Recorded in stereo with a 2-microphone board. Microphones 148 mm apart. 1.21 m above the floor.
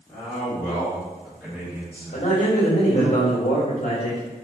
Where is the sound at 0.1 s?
10° left (ahead or behind), 2.0 m; by 3.1 s 45° right (ahead or behind), 1.2 m.